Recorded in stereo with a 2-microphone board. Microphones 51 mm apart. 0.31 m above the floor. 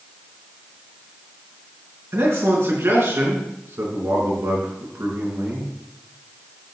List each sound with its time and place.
2.1 s a man speaking: 60° right (ahead or behind), 4 m